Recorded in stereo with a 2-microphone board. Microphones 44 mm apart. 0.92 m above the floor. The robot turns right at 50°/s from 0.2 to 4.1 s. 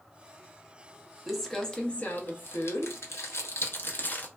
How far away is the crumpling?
About 0.6 m.